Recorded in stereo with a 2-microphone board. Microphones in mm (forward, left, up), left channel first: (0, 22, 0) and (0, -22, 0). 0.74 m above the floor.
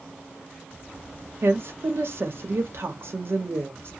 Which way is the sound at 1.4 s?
60° right (ahead or behind).